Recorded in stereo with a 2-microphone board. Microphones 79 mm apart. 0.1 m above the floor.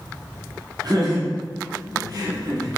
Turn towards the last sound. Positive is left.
turn(degrees=-60)  # may be behind; listen again after turning